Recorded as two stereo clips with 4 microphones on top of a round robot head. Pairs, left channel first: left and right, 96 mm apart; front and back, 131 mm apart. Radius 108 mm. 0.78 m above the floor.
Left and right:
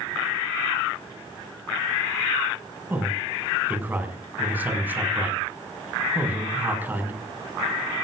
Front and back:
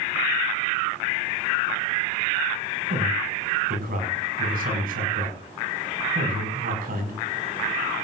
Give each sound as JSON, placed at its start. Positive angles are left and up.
{"t": 2.9, "sound": "a man speaking", "azimuth_deg": -160, "distance_m": 6.0}